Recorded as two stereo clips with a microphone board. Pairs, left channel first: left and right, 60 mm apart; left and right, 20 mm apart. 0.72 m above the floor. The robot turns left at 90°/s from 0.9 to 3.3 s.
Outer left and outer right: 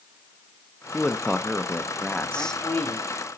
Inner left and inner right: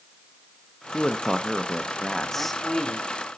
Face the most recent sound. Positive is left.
turn(degrees=110)